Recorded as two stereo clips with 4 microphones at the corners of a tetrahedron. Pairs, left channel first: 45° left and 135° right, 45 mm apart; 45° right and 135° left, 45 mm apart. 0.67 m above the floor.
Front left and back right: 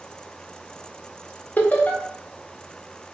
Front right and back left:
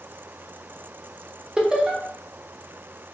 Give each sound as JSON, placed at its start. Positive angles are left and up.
{"t": 1.6, "sound": "laughter", "azimuth_deg": 75, "distance_m": 0.6}